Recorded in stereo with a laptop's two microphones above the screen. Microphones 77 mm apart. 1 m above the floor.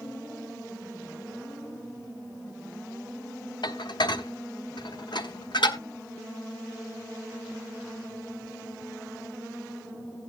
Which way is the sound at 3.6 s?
75° left (ahead or behind).